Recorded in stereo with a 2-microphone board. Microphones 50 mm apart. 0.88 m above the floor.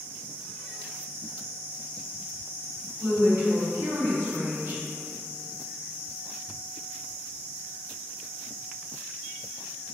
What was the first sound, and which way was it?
A woman speaking, 75° right (ahead or behind).